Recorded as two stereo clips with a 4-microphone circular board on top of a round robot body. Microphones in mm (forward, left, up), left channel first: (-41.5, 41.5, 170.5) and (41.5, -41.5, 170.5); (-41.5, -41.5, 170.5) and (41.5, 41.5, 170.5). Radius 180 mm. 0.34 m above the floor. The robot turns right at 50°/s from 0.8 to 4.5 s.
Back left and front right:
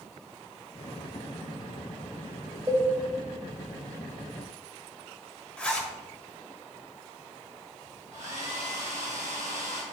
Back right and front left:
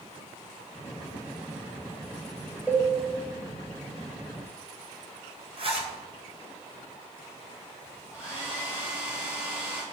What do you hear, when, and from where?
2.7 s a cowbell: 20° right, 1.3 m; by 2.9 s 10° right, 1.3 m
5.6 s a zipper: 55° left, 1.8 m
8.1 s a hair dryer: 35° right, 4 m